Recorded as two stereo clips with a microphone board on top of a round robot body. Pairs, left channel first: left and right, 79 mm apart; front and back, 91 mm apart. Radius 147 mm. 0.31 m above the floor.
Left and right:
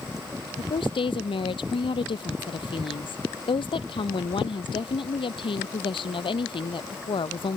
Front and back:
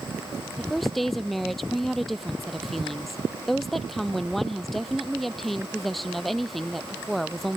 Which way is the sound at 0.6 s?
90° left.